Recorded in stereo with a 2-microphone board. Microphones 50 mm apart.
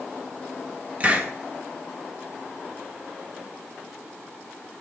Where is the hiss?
35° right (ahead or behind), 1.4 m.